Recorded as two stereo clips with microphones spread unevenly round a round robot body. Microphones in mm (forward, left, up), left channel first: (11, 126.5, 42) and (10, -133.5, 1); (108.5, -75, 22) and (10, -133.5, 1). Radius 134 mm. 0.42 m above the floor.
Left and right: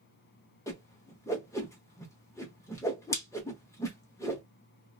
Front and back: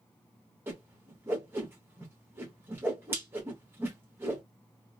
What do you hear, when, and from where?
0.7 s a whoosh: 175° left, 0.7 m